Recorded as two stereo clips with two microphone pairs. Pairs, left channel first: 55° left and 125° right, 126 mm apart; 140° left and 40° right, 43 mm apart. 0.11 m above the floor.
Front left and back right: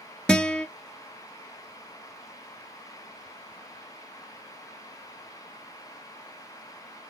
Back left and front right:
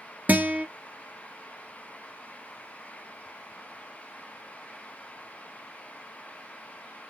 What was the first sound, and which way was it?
A guitar, 25° right.